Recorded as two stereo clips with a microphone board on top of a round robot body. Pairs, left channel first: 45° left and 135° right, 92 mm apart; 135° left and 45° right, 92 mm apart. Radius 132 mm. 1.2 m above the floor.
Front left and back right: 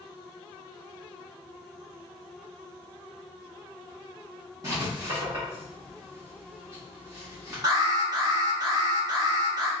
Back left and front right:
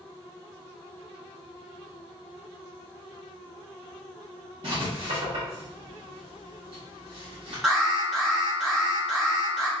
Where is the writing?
80° right, 0.9 m.